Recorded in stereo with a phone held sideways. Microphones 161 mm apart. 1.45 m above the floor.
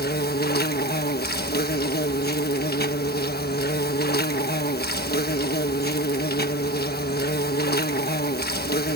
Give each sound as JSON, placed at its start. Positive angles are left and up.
{"t": 0.0, "sound": "an insect", "side_deg": 80}